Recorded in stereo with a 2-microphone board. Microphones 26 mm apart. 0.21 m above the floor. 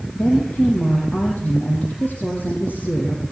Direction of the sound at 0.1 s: 75° left (ahead or behind).